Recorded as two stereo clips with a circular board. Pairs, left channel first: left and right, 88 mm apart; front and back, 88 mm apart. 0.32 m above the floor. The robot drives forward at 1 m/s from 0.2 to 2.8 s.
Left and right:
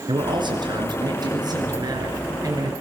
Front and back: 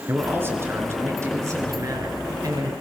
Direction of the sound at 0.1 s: 115° right.